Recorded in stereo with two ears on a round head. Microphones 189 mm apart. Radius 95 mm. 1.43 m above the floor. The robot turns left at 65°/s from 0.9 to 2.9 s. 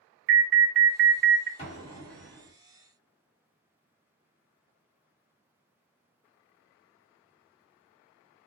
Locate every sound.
0.3 s an alarm: 100° right, 0.5 m; by 1.5 s 140° right, 0.5 m
1.6 s an explosion: 60° left, 1.4 m; by 2.5 s straight ahead, 1.4 m